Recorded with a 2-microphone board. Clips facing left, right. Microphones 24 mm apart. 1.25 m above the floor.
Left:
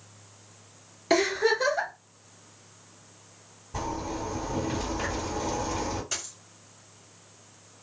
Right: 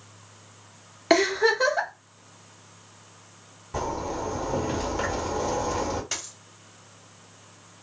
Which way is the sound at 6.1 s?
35° right (ahead or behind).